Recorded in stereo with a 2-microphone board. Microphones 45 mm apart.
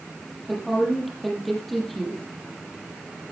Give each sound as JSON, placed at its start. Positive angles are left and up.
{"t": 0.5, "sound": "a woman speaking", "side_deg": 5, "distance_m": 6.5}